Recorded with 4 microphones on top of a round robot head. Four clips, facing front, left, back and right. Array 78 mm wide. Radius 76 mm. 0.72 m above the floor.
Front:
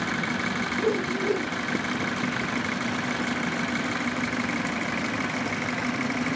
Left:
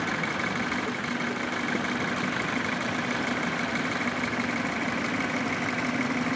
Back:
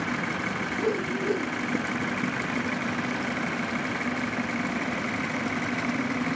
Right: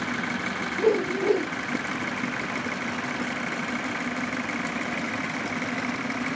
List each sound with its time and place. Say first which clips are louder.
0.8 s a whoosh: right 7 dB, front 2 dB; 85° right